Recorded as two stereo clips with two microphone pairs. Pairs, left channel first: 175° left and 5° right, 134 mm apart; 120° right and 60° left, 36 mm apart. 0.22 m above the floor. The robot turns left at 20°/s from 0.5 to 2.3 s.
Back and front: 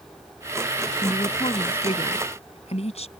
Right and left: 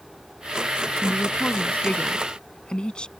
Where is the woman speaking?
150° right; by 3.1 s 175° right.